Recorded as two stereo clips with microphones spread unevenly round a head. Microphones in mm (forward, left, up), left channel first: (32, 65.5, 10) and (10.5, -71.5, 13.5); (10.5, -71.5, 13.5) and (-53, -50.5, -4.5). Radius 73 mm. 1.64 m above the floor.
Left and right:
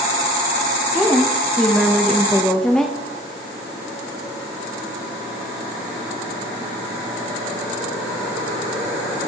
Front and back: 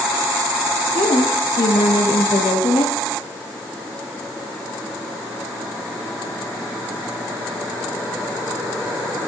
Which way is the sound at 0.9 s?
5° right.